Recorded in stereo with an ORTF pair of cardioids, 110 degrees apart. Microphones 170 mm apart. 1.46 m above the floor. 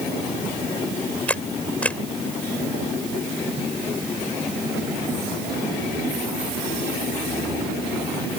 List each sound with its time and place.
1.3 s a camera shutter: 10° left